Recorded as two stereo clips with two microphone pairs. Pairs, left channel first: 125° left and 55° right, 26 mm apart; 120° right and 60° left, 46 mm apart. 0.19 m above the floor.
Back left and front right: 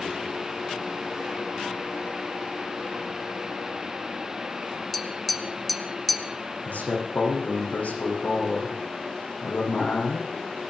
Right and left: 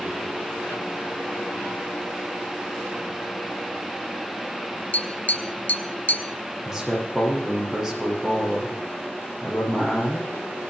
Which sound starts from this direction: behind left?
A man speaking, at 6.7 s.